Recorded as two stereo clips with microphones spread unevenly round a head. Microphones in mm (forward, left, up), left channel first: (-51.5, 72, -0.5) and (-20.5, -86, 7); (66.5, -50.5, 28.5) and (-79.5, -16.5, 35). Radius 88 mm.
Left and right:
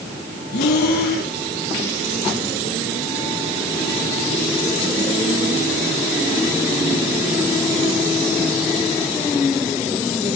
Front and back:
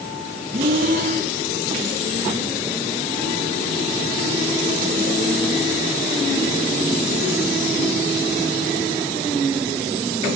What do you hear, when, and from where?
0.5 s breathing: 120° left, 5 m